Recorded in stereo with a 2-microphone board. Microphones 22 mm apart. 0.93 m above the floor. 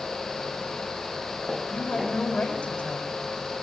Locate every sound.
1.7 s a woman speaking: 75° left (ahead or behind), 4 m